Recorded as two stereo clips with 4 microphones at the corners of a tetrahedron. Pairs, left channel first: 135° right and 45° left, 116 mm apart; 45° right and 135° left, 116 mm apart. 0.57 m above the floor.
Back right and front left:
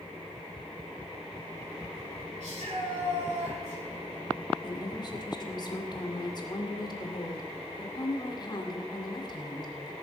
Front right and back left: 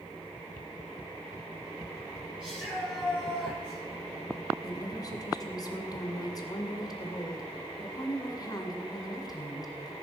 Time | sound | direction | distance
2.4 | a shout | 55° left | 8.5 m
4.6 | a woman speaking | 95° right | 2 m